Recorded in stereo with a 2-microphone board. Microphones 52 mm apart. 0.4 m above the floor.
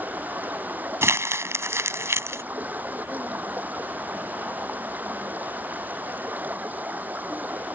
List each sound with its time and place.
0.0 s running water: 35° right (ahead or behind)
1.0 s crumpling: 60° right (ahead or behind)